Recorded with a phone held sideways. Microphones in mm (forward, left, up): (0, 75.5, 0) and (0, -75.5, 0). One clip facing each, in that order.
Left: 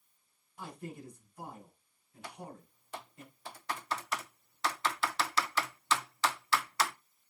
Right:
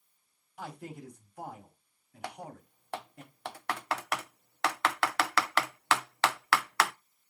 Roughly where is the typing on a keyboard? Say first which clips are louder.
Right 4 dB; right.